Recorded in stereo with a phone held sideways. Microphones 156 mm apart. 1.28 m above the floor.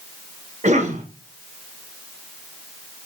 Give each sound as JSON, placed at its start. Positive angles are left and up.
{"t": 0.6, "sound": "a cough", "side_deg": -50, "distance_m": 0.8}